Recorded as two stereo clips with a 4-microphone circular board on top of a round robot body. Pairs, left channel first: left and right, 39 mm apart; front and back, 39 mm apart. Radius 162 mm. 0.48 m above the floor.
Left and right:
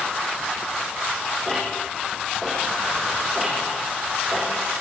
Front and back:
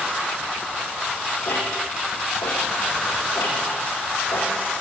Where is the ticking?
5° right, 8 m.